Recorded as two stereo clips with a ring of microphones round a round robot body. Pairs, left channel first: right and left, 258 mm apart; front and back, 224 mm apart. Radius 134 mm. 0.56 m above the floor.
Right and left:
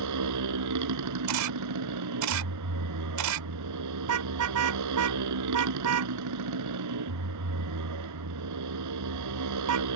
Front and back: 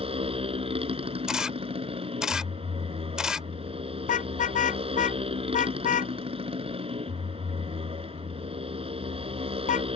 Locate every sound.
0.0 s a motorcycle: 115° left
1.3 s a camera shutter: 95° left
4.0 s a car horn: 55° left